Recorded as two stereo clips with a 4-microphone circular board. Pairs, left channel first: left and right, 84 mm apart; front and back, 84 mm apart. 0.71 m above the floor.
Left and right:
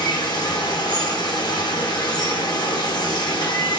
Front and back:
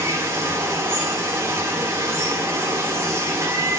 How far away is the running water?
About 1.1 m.